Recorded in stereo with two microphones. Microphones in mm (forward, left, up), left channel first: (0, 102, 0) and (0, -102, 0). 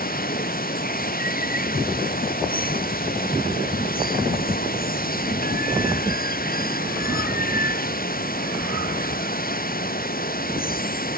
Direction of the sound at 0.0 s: 45° left (ahead or behind).